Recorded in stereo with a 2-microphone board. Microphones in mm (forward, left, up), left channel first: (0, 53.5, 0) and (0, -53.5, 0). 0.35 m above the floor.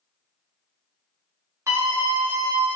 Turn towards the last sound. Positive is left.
turn(degrees=0)  # may be behind; listen again after turning